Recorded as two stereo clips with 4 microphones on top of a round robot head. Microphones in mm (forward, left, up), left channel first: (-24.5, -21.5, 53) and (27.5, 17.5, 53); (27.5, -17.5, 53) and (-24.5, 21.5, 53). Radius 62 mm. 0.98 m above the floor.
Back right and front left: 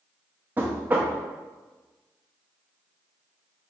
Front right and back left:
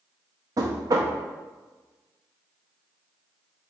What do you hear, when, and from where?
0.6 s knocking: 100° left, 0.5 m